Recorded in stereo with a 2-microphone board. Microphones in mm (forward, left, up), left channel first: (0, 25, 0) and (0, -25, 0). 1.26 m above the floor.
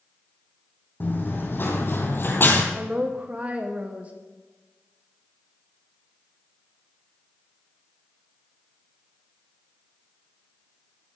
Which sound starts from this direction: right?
A woman speaking, at 2.8 s.